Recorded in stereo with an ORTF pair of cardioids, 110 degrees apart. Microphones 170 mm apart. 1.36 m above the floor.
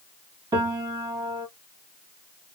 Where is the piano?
20° right, 1.6 m.